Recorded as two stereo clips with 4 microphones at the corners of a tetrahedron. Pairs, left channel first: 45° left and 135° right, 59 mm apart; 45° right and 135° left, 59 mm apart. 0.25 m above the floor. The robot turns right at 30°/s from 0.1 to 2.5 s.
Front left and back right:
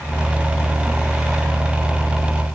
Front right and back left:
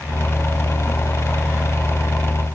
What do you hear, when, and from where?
Only background noise.